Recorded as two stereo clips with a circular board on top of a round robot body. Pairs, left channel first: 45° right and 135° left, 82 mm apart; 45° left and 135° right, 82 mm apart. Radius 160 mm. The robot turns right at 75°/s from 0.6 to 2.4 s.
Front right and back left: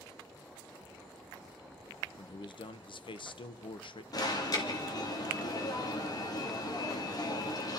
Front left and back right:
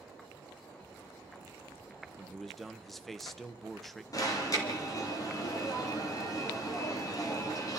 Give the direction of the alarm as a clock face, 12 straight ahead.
12 o'clock.